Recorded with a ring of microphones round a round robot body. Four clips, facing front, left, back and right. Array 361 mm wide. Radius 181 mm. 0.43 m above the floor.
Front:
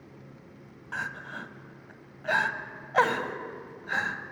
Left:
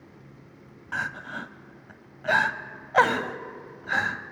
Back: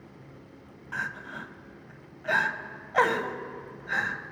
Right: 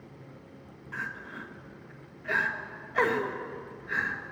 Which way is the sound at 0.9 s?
85° left.